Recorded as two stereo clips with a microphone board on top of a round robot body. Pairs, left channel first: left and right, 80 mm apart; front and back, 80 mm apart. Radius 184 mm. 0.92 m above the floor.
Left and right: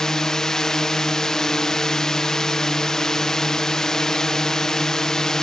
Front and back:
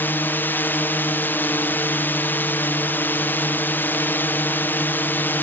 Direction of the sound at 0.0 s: 15° left.